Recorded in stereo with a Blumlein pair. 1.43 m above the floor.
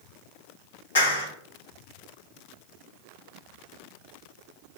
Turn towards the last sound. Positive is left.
turn(degrees=70)